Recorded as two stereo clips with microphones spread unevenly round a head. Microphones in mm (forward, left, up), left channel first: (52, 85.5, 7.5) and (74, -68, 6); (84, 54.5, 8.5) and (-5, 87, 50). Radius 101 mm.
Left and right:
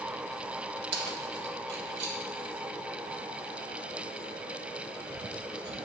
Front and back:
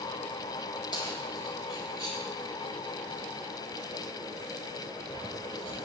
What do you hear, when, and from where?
0.9 s keys jangling: 95° right, 1.4 m